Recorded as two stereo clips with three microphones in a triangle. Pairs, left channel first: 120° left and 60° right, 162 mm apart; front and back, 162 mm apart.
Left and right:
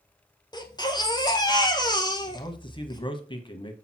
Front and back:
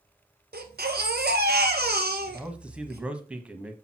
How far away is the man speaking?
About 1.3 m.